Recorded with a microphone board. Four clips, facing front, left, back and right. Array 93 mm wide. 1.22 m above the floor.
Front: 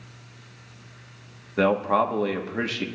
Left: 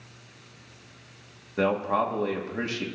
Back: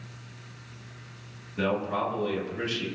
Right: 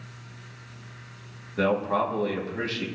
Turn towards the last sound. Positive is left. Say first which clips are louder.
# even, front 7 dB
turn(degrees=10)